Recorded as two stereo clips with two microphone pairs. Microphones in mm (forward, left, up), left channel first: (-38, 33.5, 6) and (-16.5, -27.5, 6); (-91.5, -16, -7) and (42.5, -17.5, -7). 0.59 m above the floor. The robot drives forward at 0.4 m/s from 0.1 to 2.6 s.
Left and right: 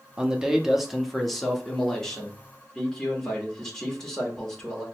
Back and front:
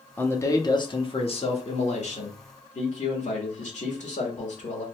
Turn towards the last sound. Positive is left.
turn(degrees=-170)